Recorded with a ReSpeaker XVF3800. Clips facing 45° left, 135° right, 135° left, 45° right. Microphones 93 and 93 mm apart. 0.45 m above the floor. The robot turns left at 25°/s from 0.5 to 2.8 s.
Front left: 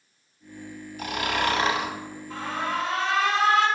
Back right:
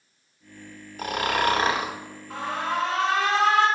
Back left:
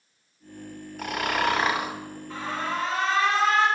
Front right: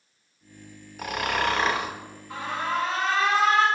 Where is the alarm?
120° right, 2 m; by 3.7 s 130° right, 2 m.